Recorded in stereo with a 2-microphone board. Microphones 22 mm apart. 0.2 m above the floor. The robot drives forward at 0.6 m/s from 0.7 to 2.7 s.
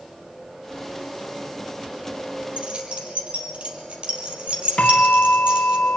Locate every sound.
2.6 s keys jangling: 70° right (ahead or behind), 3.5 m; by 5.8 s 65° right (ahead or behind), 3.5 m
4.8 s a bell: 75° left (ahead or behind), 2.5 m